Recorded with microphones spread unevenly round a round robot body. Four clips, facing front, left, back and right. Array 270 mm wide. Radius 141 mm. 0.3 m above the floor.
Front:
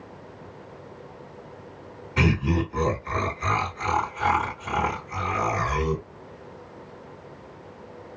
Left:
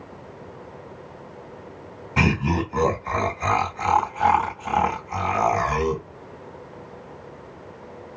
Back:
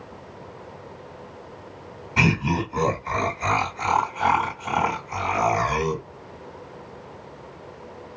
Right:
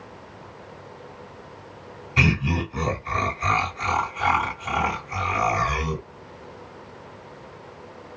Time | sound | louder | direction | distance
2.2 | laughter | left 2 dB, back 1 dB | 100° left | 2.5 m